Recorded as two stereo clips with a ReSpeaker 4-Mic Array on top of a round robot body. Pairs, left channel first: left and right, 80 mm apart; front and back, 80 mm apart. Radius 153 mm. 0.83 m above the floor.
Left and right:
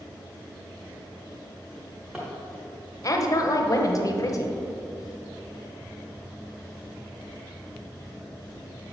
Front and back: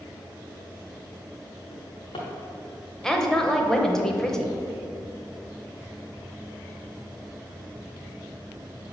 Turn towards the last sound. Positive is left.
turn(degrees=80)